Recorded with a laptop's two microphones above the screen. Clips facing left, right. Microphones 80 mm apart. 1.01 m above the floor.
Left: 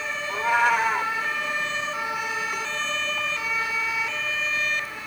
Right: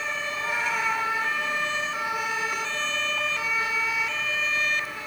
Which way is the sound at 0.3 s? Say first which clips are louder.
Left 10 dB; 65° left (ahead or behind).